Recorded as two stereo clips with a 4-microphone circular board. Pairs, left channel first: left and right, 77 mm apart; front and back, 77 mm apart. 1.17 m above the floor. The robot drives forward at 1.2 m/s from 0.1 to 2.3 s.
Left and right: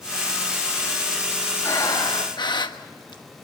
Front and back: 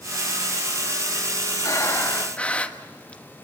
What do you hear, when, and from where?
1.6 s breathing: 45° left, 1.6 m; by 3.2 s 75° left, 1.1 m